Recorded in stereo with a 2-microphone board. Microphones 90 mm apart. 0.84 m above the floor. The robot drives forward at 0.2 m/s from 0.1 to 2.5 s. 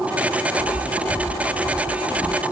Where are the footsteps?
55° left (ahead or behind), 1.5 m; by 2.4 s 45° left (ahead or behind), 2 m.